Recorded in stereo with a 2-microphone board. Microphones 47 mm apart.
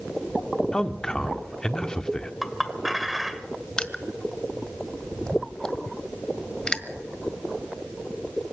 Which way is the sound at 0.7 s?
15° left (ahead or behind).